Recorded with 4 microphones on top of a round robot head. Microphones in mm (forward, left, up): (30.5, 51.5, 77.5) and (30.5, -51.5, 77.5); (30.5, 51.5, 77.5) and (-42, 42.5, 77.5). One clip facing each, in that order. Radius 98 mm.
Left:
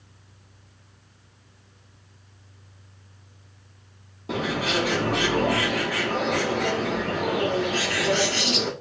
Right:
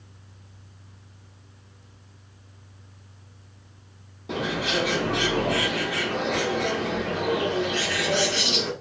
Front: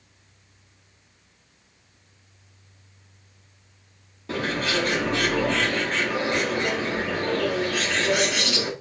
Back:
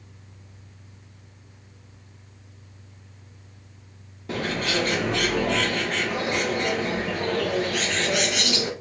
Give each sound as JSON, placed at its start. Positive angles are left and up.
{"t": 4.3, "sound": "a bird", "azimuth_deg": 100, "distance_m": 1.3}